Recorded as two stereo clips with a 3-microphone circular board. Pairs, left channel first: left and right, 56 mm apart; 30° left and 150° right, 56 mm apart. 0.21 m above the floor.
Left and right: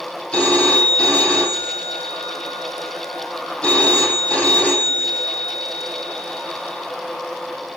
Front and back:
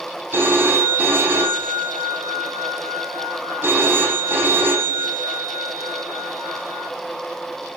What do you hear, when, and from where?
0.3 s a phone ringing: 160° left, 4.5 m